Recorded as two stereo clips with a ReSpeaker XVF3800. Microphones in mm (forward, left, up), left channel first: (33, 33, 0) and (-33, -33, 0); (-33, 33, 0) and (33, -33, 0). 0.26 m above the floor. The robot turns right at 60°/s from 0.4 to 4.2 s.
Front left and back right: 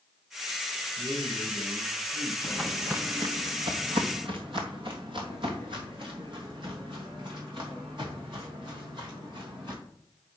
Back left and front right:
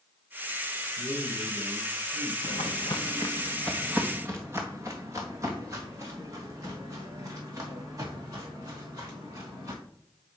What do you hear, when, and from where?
1.0 s a man speaking: 100° left, 4.5 m; by 2.3 s 175° right, 4.5 m
2.4 s footsteps: 125° left, 1.0 m; by 9.7 s 100° right, 6 m